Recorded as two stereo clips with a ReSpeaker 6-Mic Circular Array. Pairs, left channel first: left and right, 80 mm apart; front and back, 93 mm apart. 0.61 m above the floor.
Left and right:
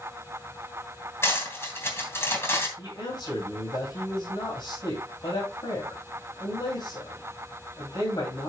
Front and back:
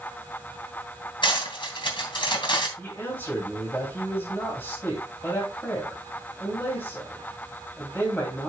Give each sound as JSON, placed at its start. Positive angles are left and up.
{"t": 1.2, "sound": "cutlery clinking", "azimuth_deg": 30, "distance_m": 3.0}
{"t": 2.8, "sound": "a man speaking", "azimuth_deg": 70, "distance_m": 3.5}